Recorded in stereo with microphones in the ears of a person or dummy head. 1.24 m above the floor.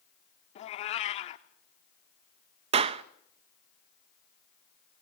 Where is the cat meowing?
40° left (ahead or behind), 1.2 m.